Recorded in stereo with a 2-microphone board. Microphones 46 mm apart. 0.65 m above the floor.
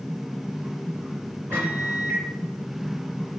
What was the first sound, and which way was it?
A microwave, 60° right (ahead or behind).